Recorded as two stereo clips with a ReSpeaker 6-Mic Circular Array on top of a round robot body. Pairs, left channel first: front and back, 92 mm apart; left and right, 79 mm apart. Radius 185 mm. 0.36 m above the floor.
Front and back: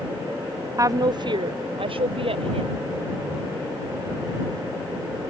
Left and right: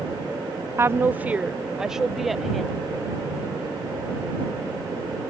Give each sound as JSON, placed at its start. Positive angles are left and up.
{"t": 0.8, "sound": "a woman speaking", "azimuth_deg": -135}